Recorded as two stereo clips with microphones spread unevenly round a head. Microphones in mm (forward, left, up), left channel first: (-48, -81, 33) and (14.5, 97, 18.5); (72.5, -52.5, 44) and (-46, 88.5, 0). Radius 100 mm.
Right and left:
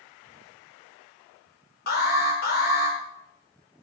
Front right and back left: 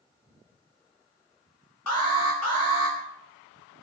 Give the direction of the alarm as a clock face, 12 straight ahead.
2 o'clock.